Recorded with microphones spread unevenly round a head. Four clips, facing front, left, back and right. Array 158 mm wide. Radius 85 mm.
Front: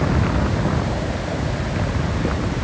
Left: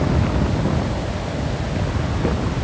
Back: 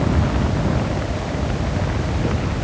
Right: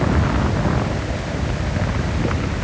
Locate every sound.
Only background noise.